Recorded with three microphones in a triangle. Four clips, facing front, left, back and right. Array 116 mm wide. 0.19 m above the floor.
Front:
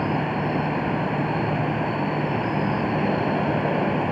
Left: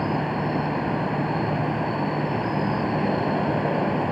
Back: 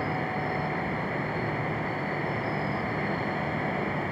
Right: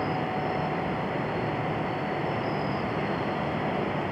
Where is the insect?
40° left.